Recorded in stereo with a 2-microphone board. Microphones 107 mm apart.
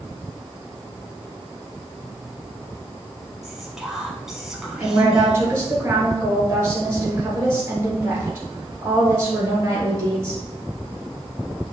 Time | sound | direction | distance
3.4 | whispering | 5° right (ahead or behind) | 1.2 m
4.8 | a woman speaking | 25° right (ahead or behind) | 2.5 m